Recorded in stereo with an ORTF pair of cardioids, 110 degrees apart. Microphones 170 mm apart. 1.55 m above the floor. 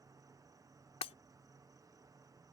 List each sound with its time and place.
0.0 s an insect: 20° right
1.0 s breaking glass: 40° left